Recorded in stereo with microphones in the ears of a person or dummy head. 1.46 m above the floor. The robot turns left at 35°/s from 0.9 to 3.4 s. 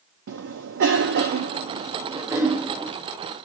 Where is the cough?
70° right (ahead or behind), 0.7 m; by 2.9 s centre (ahead or behind), 0.7 m.